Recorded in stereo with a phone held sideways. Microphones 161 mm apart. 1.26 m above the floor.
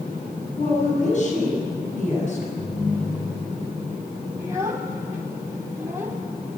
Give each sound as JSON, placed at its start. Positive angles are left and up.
{"t": 0.6, "sound": "a woman speaking", "side_deg": 50, "distance_m": 9.5}
{"t": 2.6, "sound": "a ringtone", "side_deg": 60, "distance_m": 9.0}
{"t": 4.4, "sound": "a child speaking", "side_deg": -20, "distance_m": 2.0}